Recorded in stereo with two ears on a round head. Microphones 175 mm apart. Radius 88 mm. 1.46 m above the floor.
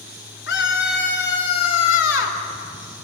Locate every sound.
0.5 s a scream: 65° left (ahead or behind), 6 m; by 2.4 s 70° left (ahead or behind), 3.5 m